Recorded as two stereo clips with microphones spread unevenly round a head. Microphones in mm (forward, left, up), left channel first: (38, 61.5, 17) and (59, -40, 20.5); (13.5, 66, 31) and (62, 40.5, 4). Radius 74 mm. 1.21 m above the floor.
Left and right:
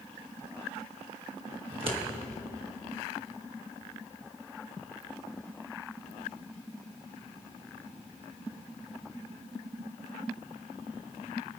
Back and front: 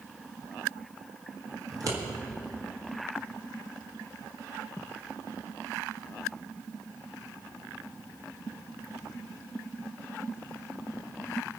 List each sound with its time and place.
1.7 s scissors: 45° right, 1.7 m